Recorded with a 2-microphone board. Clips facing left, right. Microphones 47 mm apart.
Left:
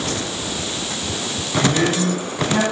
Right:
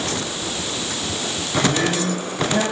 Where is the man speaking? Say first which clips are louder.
Left 2 dB; 55° left (ahead or behind), 5.5 m.